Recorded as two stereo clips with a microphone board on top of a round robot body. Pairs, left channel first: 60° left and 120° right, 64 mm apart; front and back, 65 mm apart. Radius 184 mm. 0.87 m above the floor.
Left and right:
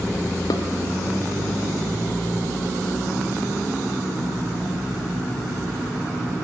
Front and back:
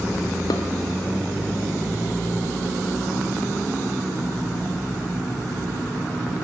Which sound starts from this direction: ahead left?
Dishes clattering, at 0.5 s.